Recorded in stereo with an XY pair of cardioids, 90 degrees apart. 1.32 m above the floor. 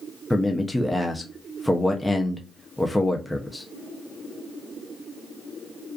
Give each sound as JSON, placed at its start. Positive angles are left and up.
{"t": 0.3, "sound": "a man speaking", "azimuth_deg": 10, "distance_m": 0.5}